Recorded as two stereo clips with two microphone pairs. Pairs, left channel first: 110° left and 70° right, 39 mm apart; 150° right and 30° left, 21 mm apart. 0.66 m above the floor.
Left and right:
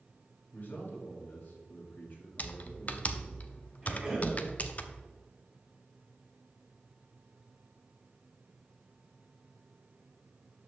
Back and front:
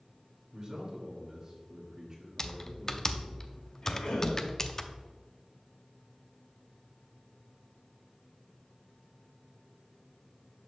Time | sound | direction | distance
0.5 | a man speaking | 85° left | 2.5 m
2.4 | typing on a keyboard | 155° left | 0.5 m
3.8 | a cough | 140° right | 3 m